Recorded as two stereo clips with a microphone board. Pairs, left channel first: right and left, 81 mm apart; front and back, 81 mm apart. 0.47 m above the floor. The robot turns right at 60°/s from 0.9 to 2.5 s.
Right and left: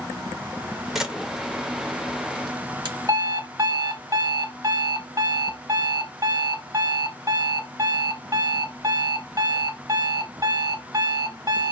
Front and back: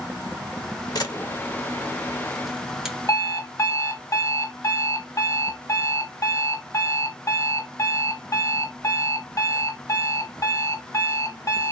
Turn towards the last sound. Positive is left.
turn(degrees=50)